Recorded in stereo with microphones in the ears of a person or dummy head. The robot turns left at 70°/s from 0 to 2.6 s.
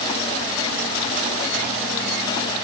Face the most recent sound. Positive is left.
No sound to turn to.